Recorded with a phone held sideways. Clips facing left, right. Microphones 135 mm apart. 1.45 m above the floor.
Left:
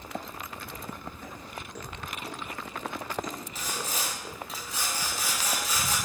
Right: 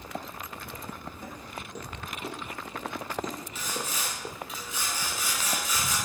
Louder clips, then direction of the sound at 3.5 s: Left 1 dB; 40° left (ahead or behind).